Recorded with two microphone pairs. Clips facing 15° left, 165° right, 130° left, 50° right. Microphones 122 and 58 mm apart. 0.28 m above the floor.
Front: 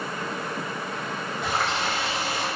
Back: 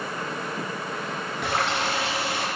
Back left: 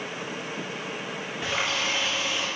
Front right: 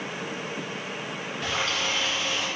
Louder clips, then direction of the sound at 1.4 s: Back 1 dB, even; 150° right.